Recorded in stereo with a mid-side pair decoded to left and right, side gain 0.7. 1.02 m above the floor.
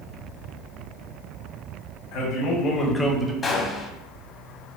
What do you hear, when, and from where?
2.1 s a man speaking: 65° left, 1.3 m; by 3.3 s 20° right, 0.9 m
3.4 s a gunshot: 25° left, 0.8 m